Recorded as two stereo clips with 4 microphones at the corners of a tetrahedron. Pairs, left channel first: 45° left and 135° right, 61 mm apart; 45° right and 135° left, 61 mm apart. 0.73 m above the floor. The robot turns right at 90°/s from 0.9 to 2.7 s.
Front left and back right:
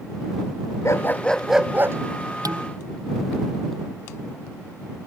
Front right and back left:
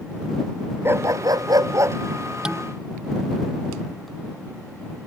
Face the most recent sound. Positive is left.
turn(degrees=-125)